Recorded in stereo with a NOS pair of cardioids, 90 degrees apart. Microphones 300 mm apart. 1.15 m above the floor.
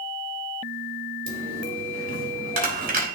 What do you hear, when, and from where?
1.3 s a dropped coin: 30° right, 2 m